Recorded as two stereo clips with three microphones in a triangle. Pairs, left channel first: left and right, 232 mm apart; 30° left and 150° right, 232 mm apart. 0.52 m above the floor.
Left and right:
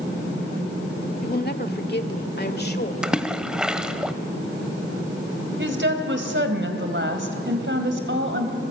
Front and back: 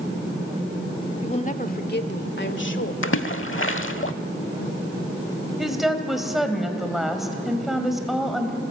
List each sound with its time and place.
1.2 s a woman speaking: 80° left, 1.1 m; by 2.9 s 50° left, 2.0 m
3.0 s a splash: 5° right, 0.9 m
5.6 s a woman speaking: 60° right, 3 m